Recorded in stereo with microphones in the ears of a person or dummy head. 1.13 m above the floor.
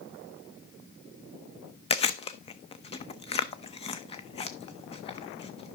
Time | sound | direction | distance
1.9 | chewing | 25° left (ahead or behind) | 0.6 m